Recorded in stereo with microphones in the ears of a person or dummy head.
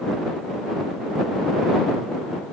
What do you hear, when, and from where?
Only background noise.